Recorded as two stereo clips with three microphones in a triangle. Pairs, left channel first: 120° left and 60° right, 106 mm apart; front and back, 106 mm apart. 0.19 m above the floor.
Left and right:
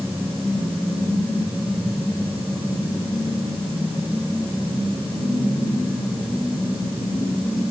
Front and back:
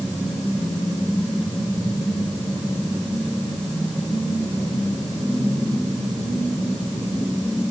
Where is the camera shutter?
No camera shutter in this recording.